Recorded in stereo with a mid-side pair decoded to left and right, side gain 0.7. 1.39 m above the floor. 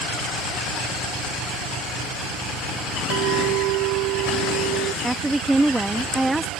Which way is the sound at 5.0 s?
10° right.